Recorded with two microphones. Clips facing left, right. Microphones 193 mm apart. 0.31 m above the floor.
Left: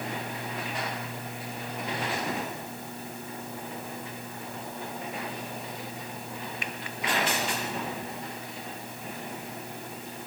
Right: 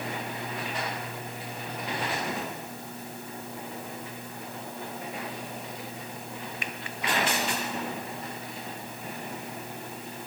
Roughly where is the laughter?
No laughter in this recording.